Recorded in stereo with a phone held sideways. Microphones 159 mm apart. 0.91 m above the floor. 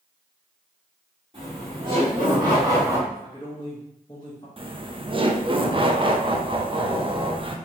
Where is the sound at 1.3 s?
35° right (ahead or behind), 2 m; by 3.0 s 20° right (ahead or behind), 1.2 m.